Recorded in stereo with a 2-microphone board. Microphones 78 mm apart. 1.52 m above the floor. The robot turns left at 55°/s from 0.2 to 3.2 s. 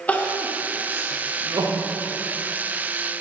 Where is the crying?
20° left (ahead or behind), 0.7 m; by 1.9 s 70° right (ahead or behind), 0.7 m.